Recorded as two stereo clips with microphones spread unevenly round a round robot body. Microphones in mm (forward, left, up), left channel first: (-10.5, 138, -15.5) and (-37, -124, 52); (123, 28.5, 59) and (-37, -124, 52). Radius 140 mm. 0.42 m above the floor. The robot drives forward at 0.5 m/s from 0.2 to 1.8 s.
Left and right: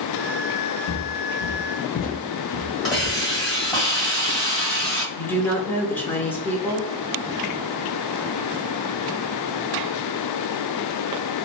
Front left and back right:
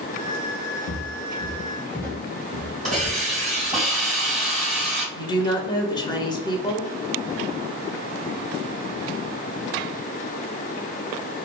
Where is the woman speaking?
85° left, 0.8 m.